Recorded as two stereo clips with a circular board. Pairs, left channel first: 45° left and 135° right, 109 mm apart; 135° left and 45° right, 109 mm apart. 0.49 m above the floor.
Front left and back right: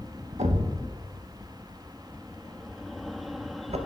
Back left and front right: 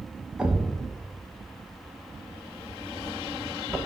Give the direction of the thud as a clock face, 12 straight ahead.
4 o'clock.